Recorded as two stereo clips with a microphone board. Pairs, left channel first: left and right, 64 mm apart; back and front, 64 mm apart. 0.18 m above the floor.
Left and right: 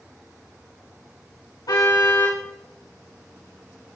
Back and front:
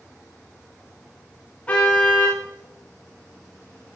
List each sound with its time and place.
1.7 s a car horn: 110° left, 8.5 m